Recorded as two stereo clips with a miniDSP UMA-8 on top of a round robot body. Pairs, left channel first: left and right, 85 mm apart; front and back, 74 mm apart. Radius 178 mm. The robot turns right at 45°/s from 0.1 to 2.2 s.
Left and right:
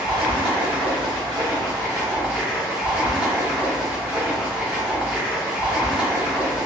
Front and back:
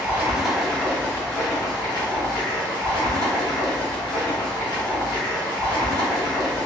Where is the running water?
110° right, 1.6 m; by 6.7 s 20° right, 1.6 m.